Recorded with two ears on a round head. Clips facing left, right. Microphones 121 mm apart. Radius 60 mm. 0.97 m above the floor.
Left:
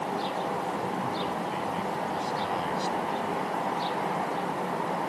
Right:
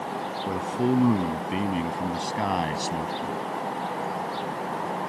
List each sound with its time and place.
0.5 s a man speaking: 75° right (ahead or behind); by 3.4 s 65° right (ahead or behind)